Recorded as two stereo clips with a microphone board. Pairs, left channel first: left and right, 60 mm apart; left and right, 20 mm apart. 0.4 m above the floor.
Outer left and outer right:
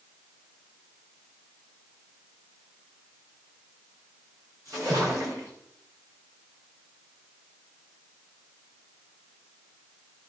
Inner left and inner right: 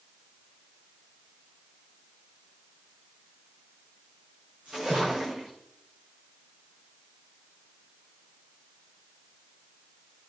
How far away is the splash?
About 9 m.